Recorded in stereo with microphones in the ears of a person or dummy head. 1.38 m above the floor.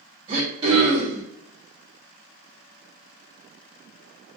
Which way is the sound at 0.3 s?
30° right (ahead or behind).